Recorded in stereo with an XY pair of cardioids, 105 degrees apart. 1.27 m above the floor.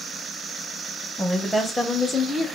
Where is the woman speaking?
15° left, 1.3 m; by 2.5 s 45° left, 0.7 m.